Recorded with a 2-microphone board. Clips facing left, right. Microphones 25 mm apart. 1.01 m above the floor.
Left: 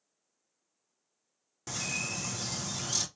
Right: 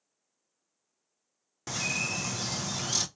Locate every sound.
1.7 s a bird: 20° right (ahead or behind), 0.5 m